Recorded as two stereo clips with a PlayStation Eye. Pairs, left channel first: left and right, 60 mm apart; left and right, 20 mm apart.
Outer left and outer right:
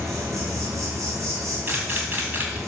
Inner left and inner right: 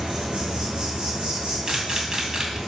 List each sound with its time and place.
0.0 s an insect: 55° right (ahead or behind), 4 m
1.7 s a camera shutter: 35° right (ahead or behind), 2 m